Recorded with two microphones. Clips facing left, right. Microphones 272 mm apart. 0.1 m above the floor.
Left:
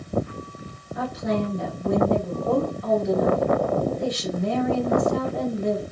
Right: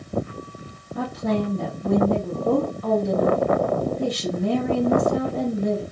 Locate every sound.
0.9 s a woman speaking: 35° right (ahead or behind), 1.5 m